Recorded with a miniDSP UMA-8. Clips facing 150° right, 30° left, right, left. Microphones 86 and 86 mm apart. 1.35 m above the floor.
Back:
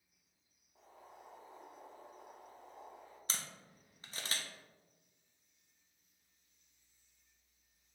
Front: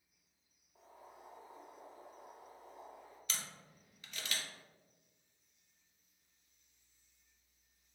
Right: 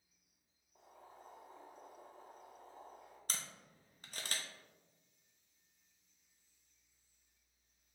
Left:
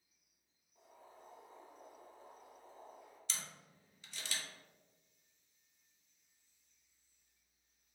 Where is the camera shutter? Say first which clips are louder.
Back 1 dB, right 2 dB; 110° right, 0.6 m.